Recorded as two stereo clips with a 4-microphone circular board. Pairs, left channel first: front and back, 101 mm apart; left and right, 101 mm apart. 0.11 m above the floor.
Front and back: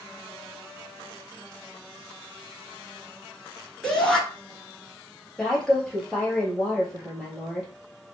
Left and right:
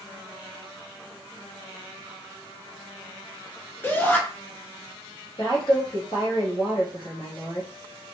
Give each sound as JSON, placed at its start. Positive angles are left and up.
{"t": 3.8, "sound": "a shout", "azimuth_deg": 75, "distance_m": 1.3}
{"t": 5.4, "sound": "a woman speaking", "azimuth_deg": 85, "distance_m": 1.8}